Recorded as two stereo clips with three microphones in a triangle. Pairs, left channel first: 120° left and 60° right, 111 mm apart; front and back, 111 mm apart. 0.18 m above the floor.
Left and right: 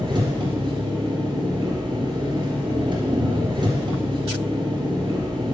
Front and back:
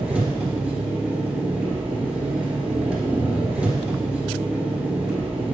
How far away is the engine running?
About 1.7 m.